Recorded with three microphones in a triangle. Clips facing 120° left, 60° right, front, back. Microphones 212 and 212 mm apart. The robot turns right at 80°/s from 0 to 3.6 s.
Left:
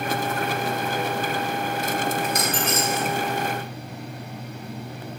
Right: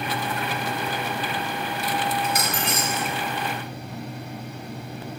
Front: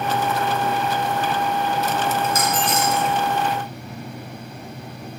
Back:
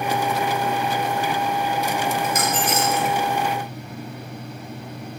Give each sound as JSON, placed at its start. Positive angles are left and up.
{"t": 2.2, "sound": "a dropped coin", "azimuth_deg": -150, "distance_m": 0.5}